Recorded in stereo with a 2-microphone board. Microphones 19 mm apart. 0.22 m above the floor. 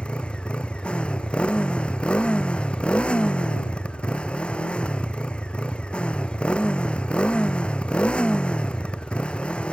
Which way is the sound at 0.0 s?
75° left (ahead or behind).